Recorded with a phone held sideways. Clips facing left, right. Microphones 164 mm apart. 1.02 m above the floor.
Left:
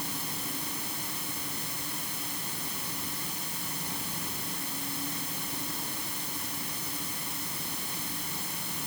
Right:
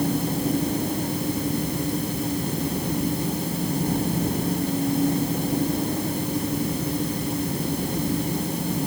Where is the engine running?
55° right (ahead or behind).